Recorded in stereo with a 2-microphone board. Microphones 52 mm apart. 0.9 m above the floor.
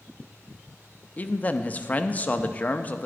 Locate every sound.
1.2 s a man speaking: 30° left (ahead or behind), 0.6 m